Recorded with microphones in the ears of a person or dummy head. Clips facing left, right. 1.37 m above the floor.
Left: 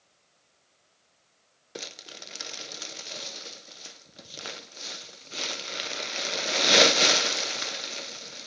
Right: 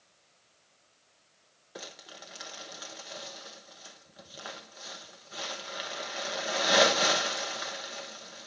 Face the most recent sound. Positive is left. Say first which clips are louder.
# left 3 dB
turn(degrees=35)  # may be behind; listen again after turning